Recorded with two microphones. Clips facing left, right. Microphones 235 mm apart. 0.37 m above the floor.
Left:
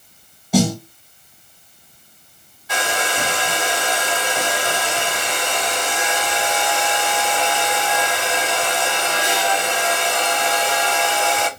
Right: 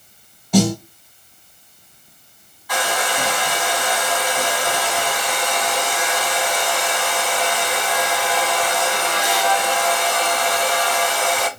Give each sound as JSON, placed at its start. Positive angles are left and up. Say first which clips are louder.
{"t": 0.5, "sound": "a snare drum", "louder": "right 1 dB", "side_deg": 5, "distance_m": 1.3}
{"t": 2.7, "sound": "a hair dryer", "louder": "right 1 dB", "side_deg": 25, "distance_m": 1.0}